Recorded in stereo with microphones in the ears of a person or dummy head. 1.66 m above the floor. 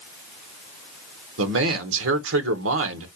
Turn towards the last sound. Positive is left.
turn(degrees=-80)